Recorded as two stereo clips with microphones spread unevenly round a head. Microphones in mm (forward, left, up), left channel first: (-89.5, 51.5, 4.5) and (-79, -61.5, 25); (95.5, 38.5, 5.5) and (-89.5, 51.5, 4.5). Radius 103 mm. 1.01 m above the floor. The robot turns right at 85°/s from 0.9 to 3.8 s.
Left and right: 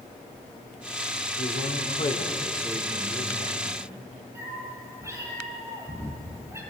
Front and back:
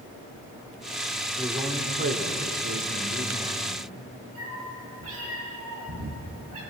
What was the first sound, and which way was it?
A man speaking, 80° left.